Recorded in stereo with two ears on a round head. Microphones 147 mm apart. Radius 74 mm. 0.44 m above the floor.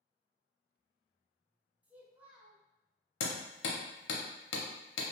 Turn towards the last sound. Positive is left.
turn(degrees=80)